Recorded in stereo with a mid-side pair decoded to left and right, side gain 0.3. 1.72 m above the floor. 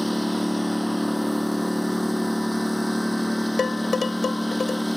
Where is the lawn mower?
5° right.